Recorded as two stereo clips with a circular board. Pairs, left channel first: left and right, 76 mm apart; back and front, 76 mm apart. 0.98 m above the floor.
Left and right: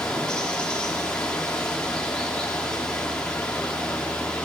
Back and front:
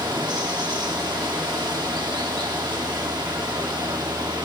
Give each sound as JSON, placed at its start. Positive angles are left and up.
{"t": 0.0, "sound": "running water", "azimuth_deg": 10, "distance_m": 1.5}